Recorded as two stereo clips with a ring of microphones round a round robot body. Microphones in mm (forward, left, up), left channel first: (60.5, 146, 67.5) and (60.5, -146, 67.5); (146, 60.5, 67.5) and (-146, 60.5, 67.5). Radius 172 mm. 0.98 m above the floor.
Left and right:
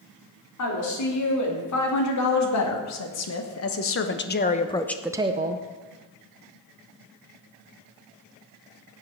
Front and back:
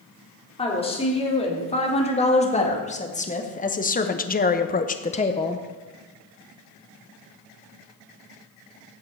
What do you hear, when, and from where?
0.6 s a woman speaking: 70° left, 3.5 m; by 5.7 s 70° right, 0.9 m